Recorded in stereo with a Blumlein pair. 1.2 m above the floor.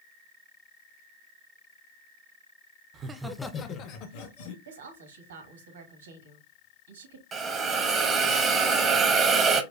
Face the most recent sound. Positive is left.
turn(degrees=-25)